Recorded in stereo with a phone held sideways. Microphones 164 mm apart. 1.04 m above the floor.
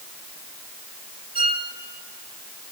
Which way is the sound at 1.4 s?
65° left (ahead or behind).